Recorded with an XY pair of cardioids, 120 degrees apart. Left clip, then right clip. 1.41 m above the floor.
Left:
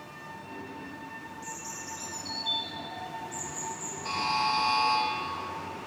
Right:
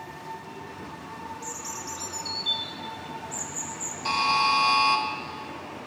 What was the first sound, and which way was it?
A bird, 35° right.